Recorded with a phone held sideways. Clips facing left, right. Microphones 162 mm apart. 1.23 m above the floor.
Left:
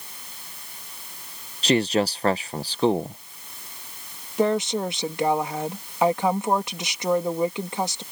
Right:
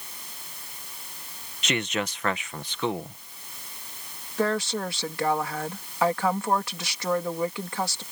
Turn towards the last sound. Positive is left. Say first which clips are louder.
# left 4 dB
turn(degrees=20)  # may be behind; listen again after turning